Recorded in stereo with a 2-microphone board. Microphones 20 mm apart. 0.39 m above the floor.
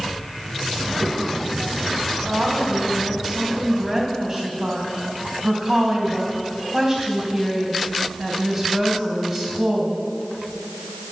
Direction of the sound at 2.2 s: 10° right (ahead or behind).